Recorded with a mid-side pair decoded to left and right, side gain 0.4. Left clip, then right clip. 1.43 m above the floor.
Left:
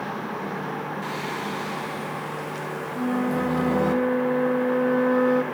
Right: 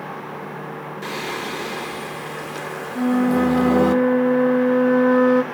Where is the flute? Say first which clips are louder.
Right 7 dB; 35° right, 0.9 m.